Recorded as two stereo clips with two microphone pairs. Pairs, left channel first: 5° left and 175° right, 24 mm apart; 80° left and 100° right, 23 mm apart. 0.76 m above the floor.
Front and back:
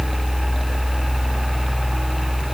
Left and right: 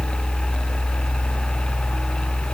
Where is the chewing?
I don't hear chewing.